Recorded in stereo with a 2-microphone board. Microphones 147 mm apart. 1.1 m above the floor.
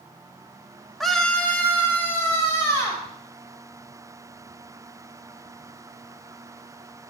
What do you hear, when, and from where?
1.0 s a scream: centre (ahead or behind), 1.3 m; by 3.0 s 20° left (ahead or behind), 3.5 m